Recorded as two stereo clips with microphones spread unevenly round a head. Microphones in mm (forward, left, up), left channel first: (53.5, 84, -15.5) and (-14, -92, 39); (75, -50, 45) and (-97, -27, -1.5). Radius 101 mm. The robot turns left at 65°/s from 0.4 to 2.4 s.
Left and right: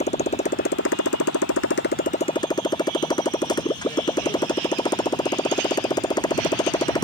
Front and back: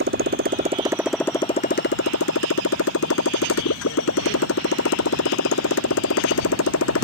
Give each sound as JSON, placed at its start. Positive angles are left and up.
{"t": 0.0, "sound": "a motorcycle", "azimuth_deg": 130}